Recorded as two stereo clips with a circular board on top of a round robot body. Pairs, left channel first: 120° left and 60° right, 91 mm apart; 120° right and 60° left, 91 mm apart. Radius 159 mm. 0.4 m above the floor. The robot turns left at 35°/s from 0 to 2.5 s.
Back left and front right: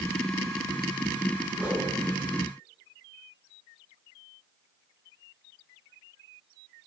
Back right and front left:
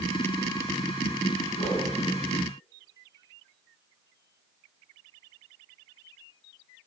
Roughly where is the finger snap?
No finger snap in this recording.